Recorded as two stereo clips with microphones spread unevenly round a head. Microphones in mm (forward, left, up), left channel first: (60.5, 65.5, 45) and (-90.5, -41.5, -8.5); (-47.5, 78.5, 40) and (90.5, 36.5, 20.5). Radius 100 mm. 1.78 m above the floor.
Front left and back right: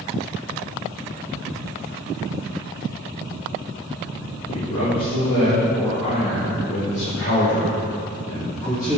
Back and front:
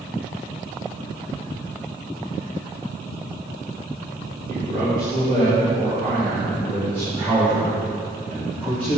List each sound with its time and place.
4.5 s a man speaking: 30° left, 2.5 m; by 9.0 s 40° left, 5 m